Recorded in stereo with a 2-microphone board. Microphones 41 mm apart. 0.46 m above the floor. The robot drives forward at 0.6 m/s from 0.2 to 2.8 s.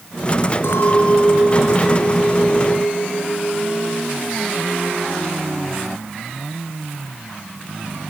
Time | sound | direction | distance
0.6 | a clink | 70° left (ahead or behind) | 4.5 m